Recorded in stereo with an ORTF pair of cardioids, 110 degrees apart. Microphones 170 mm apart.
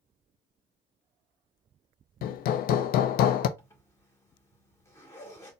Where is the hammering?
65° left, 0.5 m.